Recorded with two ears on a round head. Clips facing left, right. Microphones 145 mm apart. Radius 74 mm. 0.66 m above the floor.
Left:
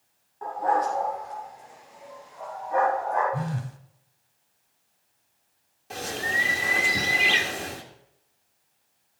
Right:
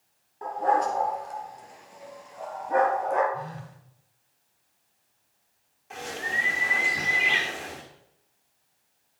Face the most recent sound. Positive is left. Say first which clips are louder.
# left 3 dB
turn(degrees=40)  # may be behind; listen again after turning